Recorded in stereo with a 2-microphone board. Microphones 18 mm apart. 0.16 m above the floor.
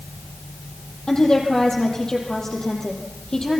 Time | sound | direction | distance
1.1 | a woman speaking | 40° left (ahead or behind) | 5.5 m